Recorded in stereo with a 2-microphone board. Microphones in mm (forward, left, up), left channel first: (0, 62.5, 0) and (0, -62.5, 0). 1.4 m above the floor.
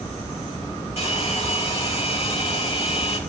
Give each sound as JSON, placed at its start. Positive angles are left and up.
{"t": 1.0, "sound": "a hair dryer", "side_deg": 55, "distance_m": 5.0}